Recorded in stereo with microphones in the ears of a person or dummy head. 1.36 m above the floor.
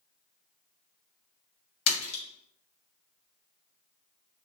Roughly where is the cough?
No cough in this recording.